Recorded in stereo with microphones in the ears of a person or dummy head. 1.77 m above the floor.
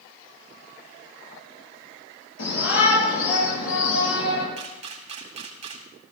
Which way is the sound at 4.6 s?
40° right (ahead or behind).